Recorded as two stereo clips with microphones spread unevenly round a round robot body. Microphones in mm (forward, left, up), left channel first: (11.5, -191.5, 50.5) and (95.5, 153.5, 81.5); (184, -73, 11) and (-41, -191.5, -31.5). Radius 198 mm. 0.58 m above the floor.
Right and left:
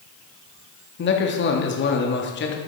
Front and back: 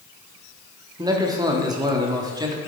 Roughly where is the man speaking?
Right.